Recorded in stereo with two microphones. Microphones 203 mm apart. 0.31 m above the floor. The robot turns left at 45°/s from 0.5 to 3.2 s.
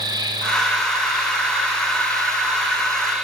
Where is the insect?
20° right, 5 m; by 3.2 s 140° right, 5 m.